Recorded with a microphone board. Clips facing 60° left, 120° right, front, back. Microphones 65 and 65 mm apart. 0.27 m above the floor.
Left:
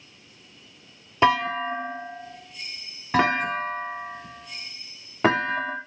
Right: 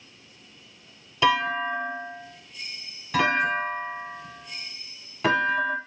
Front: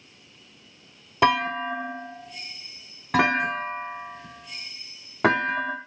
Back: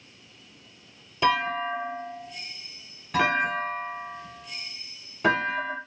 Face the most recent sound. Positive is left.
turn(degrees=10)